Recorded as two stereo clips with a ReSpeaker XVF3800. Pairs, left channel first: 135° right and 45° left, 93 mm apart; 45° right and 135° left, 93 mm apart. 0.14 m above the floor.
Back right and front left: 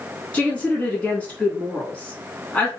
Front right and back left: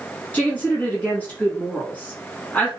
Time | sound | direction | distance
0.3 | a woman speaking | 85° right | 1.2 m